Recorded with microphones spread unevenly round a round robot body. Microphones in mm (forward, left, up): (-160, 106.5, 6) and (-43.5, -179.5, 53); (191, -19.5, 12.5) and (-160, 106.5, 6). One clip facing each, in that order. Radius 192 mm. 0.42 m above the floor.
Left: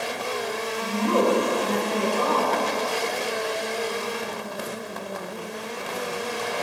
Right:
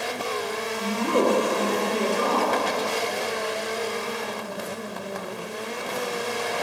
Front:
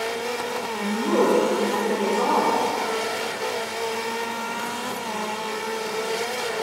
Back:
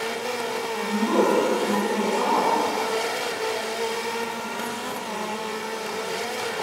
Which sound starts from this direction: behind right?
A woman speaking, at 0.8 s.